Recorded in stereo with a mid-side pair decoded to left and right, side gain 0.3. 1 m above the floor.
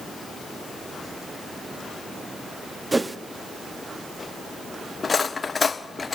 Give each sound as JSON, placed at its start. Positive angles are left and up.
{"t": 2.9, "sound": "a whoosh", "azimuth_deg": -25, "distance_m": 1.3}
{"t": 5.0, "sound": "cutlery clinking", "azimuth_deg": 45, "distance_m": 1.2}